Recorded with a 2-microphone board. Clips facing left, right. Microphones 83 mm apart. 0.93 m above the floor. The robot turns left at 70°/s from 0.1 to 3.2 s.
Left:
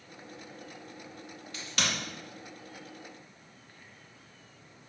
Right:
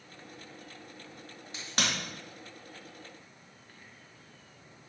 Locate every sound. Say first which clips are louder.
1.5 s a crack: right 1 dB; 20° right (ahead or behind), 1.2 m; by 1.9 s 45° right (ahead or behind), 1.2 m